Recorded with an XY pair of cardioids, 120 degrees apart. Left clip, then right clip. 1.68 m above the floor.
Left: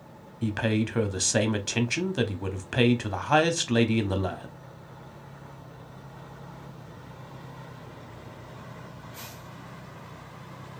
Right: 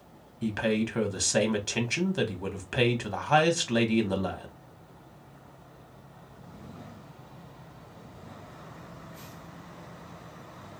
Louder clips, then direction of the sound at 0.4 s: Even; 20° left.